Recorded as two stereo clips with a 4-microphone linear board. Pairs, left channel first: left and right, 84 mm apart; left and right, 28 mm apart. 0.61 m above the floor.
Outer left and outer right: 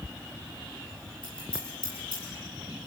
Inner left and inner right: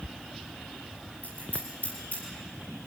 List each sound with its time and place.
1.2 s scissors: 70° left (ahead or behind), 9 m